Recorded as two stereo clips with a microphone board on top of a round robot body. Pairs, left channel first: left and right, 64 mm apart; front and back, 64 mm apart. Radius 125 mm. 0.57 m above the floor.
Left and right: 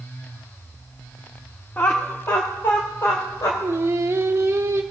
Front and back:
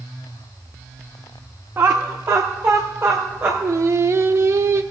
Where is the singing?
135° right, 0.7 m.